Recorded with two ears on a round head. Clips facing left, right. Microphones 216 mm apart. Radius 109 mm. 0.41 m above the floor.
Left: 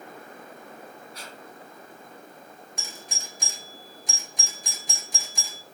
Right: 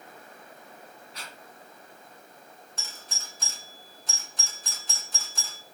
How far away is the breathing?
About 2.5 m.